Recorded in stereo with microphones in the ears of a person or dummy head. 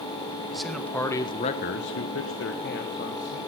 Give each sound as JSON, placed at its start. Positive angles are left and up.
{"t": 0.5, "sound": "a man speaking", "side_deg": 0, "distance_m": 1.6}